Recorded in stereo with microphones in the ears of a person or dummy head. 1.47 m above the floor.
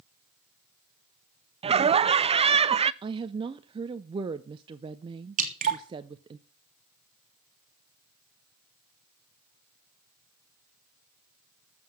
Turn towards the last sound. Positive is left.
turn(degrees=-45)  # may be behind; listen again after turning